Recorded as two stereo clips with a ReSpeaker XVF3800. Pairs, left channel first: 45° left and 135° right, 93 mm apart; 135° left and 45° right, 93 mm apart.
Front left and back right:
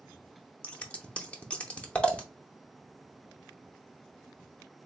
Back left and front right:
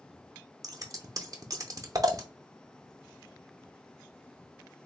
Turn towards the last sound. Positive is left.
turn(degrees=-25)